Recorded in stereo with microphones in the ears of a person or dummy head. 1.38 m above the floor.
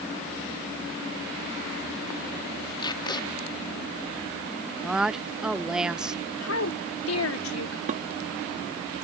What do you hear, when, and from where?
2.8 s tape being pulled: 20° left (ahead or behind)
4.8 s a woman speaking: centre (ahead or behind)
6.4 s a woman speaking: 75° left (ahead or behind)
7.9 s dishes clattering: 45° right (ahead or behind)